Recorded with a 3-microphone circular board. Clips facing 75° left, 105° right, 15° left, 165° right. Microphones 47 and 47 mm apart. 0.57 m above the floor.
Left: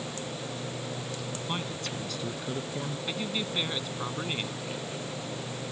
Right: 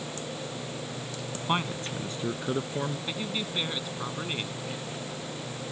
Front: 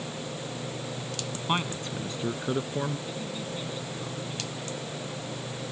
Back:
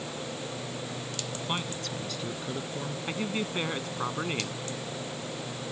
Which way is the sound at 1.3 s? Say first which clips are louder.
Right 8 dB, front 5 dB; 55° right.